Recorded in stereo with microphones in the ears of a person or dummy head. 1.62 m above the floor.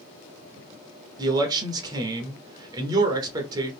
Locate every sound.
1.2 s a man speaking: 25° right (ahead or behind), 0.6 m